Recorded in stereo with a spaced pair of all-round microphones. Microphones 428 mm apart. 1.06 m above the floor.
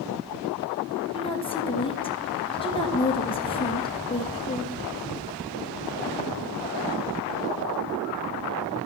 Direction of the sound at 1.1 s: 10° left (ahead or behind).